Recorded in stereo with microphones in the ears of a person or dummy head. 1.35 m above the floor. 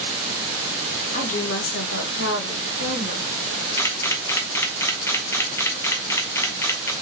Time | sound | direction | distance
1.1 | a woman speaking | 35° left (ahead or behind) | 1.0 m
3.8 | a camera shutter | 15° left (ahead or behind) | 0.7 m